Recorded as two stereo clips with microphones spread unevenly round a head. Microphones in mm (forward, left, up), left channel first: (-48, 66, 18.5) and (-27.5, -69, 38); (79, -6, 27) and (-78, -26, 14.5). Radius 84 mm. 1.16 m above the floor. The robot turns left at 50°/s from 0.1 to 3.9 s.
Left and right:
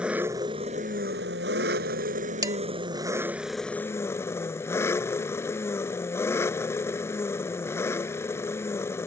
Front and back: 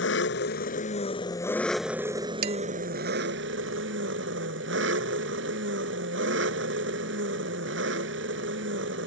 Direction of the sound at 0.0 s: Straight ahead.